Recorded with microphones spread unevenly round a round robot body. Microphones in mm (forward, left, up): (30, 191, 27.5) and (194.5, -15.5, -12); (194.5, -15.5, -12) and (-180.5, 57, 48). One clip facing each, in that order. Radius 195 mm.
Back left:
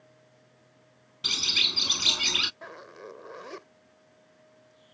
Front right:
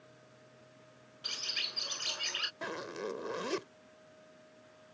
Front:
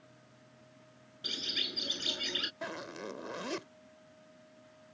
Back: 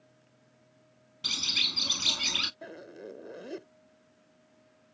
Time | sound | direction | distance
1.2 | a bird | 115° left | ?
2.6 | a zipper | 50° right | ?